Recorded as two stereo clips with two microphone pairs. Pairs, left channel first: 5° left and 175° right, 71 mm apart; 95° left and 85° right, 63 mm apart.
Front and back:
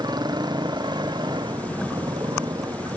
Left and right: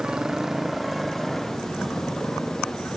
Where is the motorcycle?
165° right; by 3.0 s 170° left.